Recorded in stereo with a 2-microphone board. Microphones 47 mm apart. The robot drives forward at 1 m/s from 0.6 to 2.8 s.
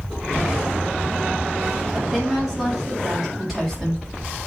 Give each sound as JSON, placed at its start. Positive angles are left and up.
{"t": 1.9, "sound": "a woman speaking", "side_deg": -10, "distance_m": 6.0}